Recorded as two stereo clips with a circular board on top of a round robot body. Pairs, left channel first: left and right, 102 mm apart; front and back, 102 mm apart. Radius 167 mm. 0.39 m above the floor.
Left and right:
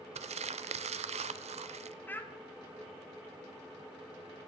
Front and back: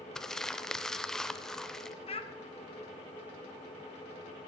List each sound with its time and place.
0.1 s crumpling: 85° right, 0.5 m
2.1 s a child speaking: 20° left, 1.6 m